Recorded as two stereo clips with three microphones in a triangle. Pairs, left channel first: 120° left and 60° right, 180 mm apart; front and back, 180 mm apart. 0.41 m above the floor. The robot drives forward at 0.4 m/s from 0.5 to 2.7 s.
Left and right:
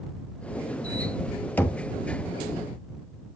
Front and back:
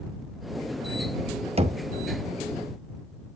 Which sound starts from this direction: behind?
Knocking, at 1.6 s.